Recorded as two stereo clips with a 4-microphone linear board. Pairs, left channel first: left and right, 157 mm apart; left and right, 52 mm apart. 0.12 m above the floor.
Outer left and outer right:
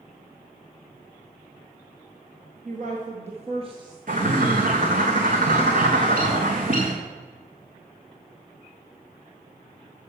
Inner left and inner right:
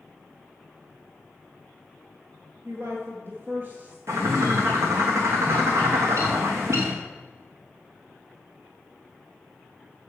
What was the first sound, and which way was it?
A woman speaking, 55° right (ahead or behind).